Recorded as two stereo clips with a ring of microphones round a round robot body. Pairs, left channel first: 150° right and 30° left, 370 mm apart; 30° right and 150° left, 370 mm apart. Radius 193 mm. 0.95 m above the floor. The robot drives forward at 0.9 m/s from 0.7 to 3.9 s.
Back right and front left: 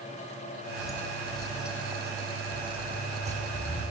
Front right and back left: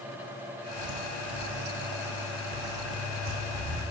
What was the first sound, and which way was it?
Footsteps, 130° left.